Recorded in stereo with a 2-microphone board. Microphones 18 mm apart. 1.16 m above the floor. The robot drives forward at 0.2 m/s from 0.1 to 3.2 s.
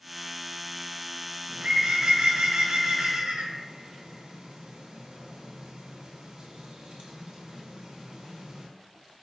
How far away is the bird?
About 0.7 m.